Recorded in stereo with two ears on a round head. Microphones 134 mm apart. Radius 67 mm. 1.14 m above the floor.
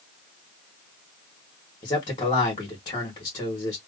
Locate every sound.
1.8 s a man speaking: 35° left (ahead or behind), 1.6 m